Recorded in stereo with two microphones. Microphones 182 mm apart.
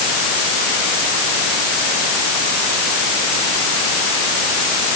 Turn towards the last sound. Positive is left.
No sound to turn to.